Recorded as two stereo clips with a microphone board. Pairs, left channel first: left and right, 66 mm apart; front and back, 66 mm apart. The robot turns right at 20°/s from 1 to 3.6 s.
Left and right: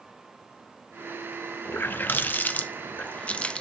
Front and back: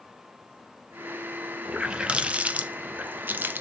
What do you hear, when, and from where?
1.6 s a running tap: 110° left, 0.6 m; by 3.6 s 150° left, 0.6 m